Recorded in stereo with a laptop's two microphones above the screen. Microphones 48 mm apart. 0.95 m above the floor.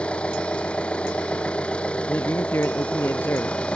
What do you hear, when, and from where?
0.0 s an engine running: 25° left (ahead or behind)
2.1 s a man speaking: 55° left (ahead or behind)